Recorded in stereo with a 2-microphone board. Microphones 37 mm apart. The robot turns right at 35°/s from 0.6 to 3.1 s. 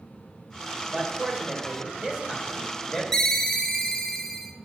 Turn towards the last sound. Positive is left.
turn(degrees=15)  # may be behind; listen again after turning